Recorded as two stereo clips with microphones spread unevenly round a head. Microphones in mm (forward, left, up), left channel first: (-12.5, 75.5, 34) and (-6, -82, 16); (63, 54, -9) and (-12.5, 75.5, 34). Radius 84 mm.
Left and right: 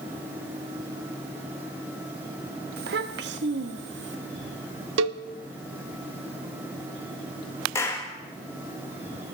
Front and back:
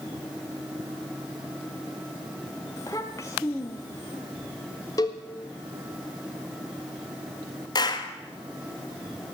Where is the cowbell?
85° right, 0.8 m.